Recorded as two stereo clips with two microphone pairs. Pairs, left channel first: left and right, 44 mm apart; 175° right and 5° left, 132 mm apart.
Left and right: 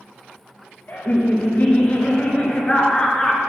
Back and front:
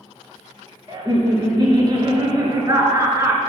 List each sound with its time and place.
0.9 s laughter: 55° left, 2 m; by 3.4 s 20° left, 1.2 m